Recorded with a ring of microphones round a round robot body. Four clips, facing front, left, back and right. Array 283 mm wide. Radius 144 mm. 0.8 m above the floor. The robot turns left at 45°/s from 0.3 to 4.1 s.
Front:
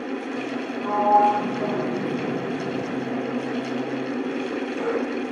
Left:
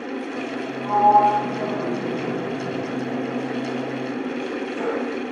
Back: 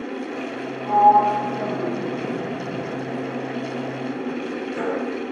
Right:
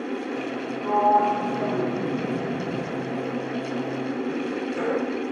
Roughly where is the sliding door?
Ahead.